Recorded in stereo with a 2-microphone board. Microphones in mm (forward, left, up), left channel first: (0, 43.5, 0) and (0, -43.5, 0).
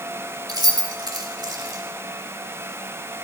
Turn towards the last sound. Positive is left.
turn(degrees=-45)  # may be behind; listen again after turning